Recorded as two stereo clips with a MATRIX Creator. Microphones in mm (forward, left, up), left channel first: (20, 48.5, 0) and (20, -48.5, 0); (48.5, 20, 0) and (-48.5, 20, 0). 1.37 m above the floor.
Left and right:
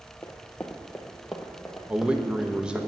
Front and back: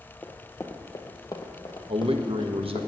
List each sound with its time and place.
0.2 s running footsteps: 45° left, 1.4 m; by 2.9 s 10° right, 2.5 m
1.9 s a man speaking: 170° right, 1.0 m